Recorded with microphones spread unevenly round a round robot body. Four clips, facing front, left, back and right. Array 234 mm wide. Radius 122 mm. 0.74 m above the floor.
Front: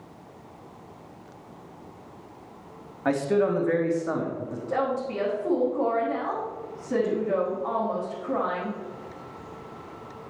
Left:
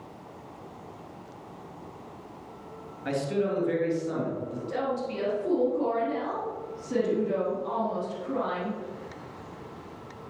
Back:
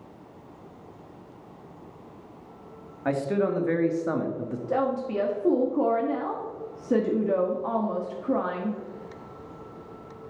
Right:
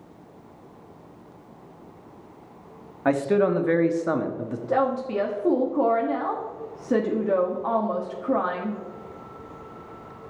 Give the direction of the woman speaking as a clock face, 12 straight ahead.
4 o'clock.